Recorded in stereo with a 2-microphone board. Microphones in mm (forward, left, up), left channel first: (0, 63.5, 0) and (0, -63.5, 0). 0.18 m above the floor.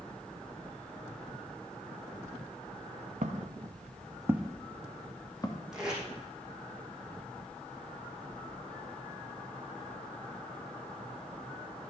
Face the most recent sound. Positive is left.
turn(degrees=-5)  # may be behind; listen again after turning